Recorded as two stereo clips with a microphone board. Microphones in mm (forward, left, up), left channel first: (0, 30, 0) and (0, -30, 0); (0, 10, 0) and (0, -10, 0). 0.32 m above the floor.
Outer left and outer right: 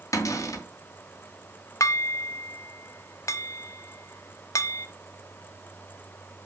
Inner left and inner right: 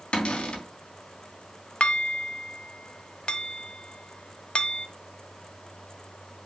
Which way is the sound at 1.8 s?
60° left (ahead or behind).